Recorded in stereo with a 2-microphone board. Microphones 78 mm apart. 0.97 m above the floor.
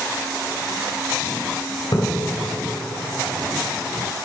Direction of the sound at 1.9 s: 65° left (ahead or behind).